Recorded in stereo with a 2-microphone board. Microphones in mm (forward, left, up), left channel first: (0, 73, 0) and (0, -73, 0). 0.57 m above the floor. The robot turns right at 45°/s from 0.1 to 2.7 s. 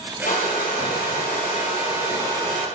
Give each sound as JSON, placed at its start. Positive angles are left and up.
{"t": 0.2, "sound": "a hair dryer", "azimuth_deg": 65, "distance_m": 4.5}